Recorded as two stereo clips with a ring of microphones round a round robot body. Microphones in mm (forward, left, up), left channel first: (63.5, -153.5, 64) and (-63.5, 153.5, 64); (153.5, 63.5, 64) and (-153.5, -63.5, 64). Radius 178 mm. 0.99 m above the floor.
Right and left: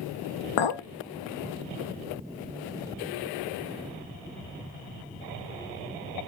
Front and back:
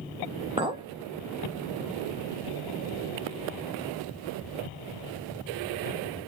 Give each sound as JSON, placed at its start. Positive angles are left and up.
{"t": 0.6, "sound": "a clink", "azimuth_deg": -85, "distance_m": 0.5}